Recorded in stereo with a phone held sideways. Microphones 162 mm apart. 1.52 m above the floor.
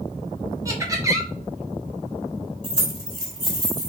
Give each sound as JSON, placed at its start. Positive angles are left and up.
{"t": 0.7, "sound": "laughter", "side_deg": -20, "distance_m": 1.5}
{"t": 2.6, "sound": "keys jangling", "side_deg": -30, "distance_m": 3.0}